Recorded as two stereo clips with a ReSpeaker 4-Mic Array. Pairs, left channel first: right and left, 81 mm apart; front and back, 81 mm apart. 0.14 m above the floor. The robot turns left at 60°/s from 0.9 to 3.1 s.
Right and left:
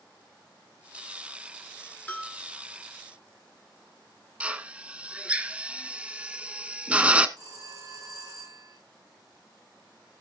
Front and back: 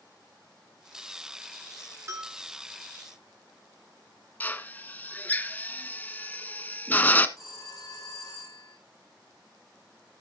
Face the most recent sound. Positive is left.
turn(degrees=45)